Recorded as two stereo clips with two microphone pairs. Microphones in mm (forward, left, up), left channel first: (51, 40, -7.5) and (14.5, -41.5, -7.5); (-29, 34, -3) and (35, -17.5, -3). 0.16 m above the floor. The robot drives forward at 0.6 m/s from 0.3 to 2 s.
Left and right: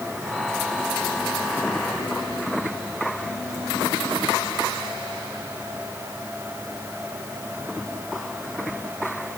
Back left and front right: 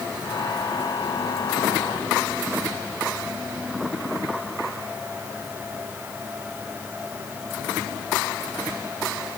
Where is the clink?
I don't hear a clink.